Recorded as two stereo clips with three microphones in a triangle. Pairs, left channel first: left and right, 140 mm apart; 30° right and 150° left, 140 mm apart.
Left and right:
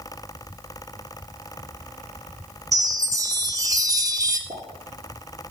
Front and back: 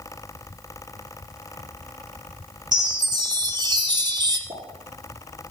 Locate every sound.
2.7 s a chime: 150° right, 1.1 m
4.5 s a pop: 155° right, 4.5 m